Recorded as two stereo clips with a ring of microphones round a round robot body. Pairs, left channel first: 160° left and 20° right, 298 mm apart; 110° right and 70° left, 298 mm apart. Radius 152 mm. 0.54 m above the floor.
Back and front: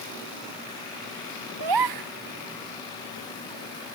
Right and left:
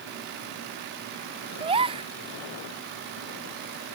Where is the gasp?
5° right.